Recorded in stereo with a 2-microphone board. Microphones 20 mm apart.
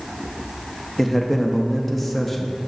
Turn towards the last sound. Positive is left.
turn(degrees=5)  # may be behind; listen again after turning